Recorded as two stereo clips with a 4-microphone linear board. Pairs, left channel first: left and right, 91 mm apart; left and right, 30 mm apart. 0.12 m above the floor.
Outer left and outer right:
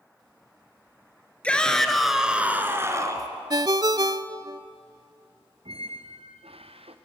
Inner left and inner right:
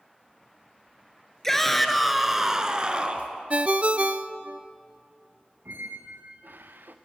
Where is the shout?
10° left (ahead or behind), 2.5 m; by 3.3 s 40° right (ahead or behind), 2 m.